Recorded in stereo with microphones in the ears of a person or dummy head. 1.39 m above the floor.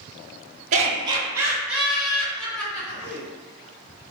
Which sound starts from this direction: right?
Laughter, at 0.7 s.